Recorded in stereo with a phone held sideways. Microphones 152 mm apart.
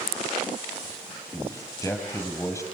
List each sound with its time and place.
1.3 s a man speaking: 20° left (ahead or behind), 5 m